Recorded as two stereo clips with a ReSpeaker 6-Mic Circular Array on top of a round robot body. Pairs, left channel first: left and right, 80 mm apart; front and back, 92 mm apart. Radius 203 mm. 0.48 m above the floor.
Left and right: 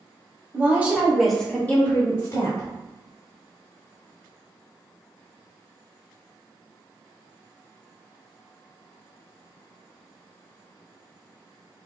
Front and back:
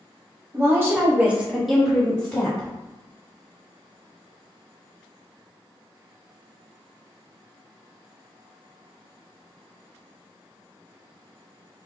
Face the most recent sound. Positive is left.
turn(degrees=65)